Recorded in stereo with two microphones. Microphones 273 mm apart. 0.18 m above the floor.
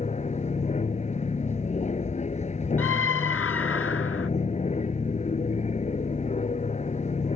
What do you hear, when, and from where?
0.0 s an aircraft: 25° left (ahead or behind)
2.8 s a scream: 50° left (ahead or behind)